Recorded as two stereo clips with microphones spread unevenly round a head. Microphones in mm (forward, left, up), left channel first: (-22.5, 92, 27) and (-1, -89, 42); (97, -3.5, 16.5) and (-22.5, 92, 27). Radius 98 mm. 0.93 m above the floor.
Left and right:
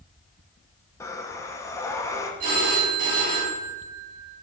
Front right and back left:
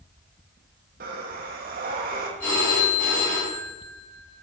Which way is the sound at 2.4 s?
125° right.